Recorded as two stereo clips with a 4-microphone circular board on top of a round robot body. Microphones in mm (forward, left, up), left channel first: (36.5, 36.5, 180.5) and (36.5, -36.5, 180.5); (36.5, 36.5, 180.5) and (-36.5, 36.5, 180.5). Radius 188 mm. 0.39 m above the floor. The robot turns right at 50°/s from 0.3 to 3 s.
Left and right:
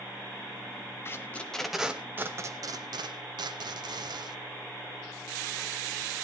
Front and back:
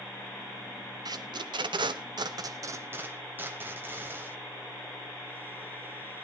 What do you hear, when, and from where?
1.1 s tape being pulled: 150° left, 0.7 m; by 4.4 s 115° right, 0.7 m